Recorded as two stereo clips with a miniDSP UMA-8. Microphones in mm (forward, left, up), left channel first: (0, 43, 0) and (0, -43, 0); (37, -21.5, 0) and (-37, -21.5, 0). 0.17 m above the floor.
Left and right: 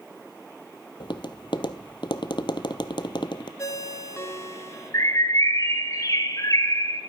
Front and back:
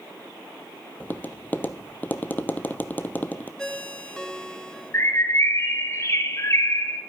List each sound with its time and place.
1.0 s tapping: 65° left, 0.7 m
3.6 s a ringtone: 75° left, 0.8 m
4.9 s a bird: 45° left, 1.5 m